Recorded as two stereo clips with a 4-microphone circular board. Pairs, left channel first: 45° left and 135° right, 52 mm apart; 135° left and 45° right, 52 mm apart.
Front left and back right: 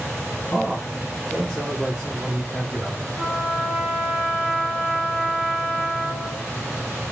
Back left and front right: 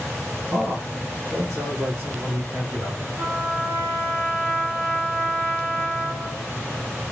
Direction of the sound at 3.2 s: 65° right.